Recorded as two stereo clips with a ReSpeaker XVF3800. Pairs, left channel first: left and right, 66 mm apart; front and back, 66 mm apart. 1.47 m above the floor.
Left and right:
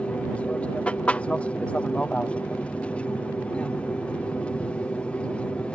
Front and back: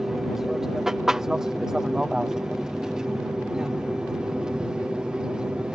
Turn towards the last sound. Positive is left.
turn(degrees=125)